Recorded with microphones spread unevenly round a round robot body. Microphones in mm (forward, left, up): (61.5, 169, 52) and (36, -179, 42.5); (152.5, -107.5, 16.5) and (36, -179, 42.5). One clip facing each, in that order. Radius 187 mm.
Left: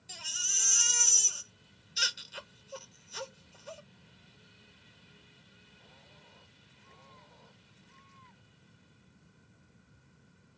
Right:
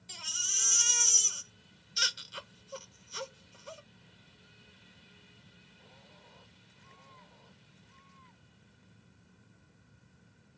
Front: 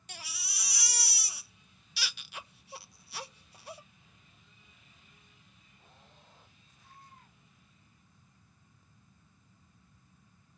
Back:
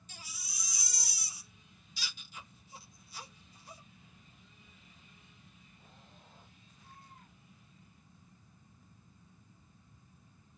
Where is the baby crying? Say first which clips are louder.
Left 1 dB, front 5 dB; 10° right, 0.6 m.